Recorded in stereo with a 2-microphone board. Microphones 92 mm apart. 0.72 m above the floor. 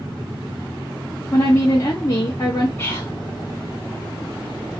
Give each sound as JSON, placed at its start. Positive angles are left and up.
{"t": 1.3, "sound": "a woman speaking", "side_deg": 35, "distance_m": 0.6}
{"t": 2.8, "sound": "whispering", "side_deg": 25, "distance_m": 1.5}